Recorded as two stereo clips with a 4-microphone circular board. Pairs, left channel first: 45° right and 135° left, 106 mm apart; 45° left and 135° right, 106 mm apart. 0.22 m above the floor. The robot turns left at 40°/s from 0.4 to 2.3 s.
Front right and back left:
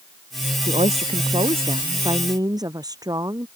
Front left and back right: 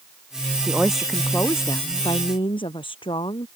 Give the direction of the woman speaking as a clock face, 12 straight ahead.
7 o'clock.